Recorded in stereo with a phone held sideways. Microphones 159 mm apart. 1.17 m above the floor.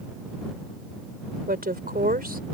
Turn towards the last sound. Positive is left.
turn(degrees=-70)  # may be behind; listen again after turning